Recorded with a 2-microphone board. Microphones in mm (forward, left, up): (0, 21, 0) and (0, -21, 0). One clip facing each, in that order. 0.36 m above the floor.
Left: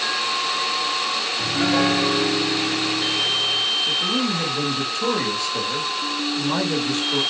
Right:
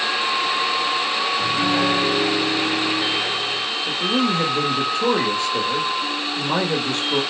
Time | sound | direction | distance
1.4 | a piano | 30° left (ahead or behind) | 1.1 m
3.9 | a man speaking | 25° right (ahead or behind) | 0.9 m